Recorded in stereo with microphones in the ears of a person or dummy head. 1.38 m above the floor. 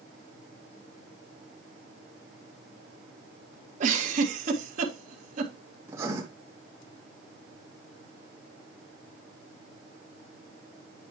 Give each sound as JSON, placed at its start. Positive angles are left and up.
{"t": 3.8, "sound": "a giggle", "side_deg": -50, "distance_m": 2.0}
{"t": 5.9, "sound": "writing", "side_deg": -20, "distance_m": 2.5}